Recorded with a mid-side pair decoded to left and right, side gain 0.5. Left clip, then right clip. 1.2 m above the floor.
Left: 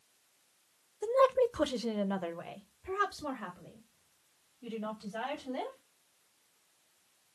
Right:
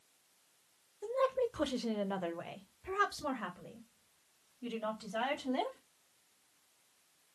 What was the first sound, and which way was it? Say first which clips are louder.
A woman speaking: left 7 dB; 50° left.